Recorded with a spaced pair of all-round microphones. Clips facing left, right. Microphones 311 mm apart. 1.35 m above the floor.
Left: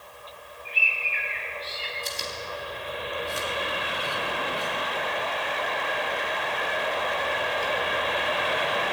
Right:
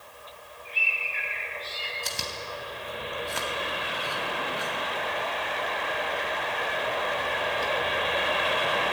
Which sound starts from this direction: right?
Chewing, at 2.0 s.